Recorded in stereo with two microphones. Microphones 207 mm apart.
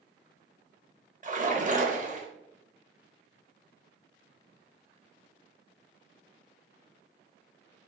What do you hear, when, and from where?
1.2 s a splash: 40° right (ahead or behind), 0.9 m